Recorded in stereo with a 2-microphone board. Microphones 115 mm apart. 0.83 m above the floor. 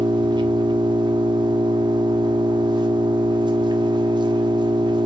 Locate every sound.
0.0 s an engine running: 40° right (ahead or behind), 1.0 m